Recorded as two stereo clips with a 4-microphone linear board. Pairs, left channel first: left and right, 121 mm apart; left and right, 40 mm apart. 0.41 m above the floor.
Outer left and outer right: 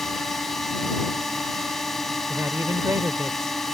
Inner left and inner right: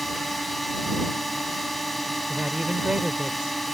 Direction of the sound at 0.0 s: Centre (ahead or behind).